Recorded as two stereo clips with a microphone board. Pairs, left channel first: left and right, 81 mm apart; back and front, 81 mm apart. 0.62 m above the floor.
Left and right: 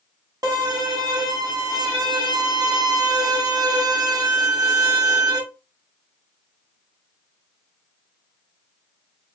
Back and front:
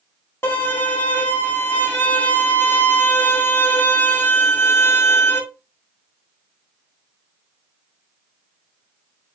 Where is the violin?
125° right, 1.1 m.